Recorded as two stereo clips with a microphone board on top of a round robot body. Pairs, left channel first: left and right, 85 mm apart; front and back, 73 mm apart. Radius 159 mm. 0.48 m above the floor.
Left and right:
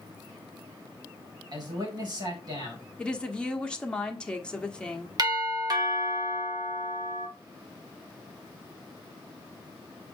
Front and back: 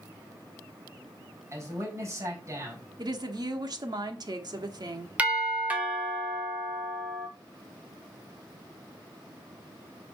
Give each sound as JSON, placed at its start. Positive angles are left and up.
{"t": 1.5, "sound": "a man speaking", "azimuth_deg": -130, "distance_m": 4.0}
{"t": 3.0, "sound": "a woman speaking", "azimuth_deg": 165, "distance_m": 1.5}
{"t": 5.2, "sound": "a doorbell", "azimuth_deg": -115, "distance_m": 2.5}